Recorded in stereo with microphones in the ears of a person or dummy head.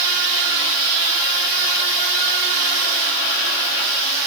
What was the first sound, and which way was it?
Only background noise.